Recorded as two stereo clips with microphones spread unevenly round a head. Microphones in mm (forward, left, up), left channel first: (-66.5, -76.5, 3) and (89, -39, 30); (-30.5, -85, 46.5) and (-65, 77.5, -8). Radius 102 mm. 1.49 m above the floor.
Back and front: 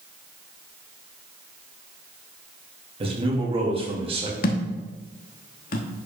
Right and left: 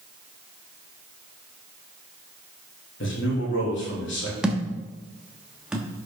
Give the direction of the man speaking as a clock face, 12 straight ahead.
1 o'clock.